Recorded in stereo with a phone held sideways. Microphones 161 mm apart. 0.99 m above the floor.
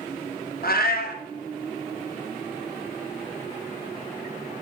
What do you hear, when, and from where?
0.6 s a cat meowing: 70° left (ahead or behind), 0.8 m